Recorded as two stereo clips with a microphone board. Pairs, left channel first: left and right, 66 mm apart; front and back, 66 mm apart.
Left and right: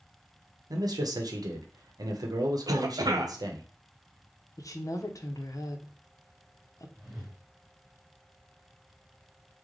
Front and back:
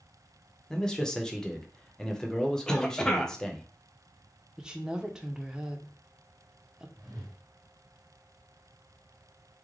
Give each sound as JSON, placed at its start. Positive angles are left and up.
{"t": 0.7, "sound": "a man speaking", "azimuth_deg": -80, "distance_m": 0.7}
{"t": 2.7, "sound": "a cough", "azimuth_deg": -80, "distance_m": 0.6}
{"t": 4.6, "sound": "a woman speaking", "azimuth_deg": 105, "distance_m": 0.6}
{"t": 7.0, "sound": "a whoosh", "azimuth_deg": 180, "distance_m": 1.7}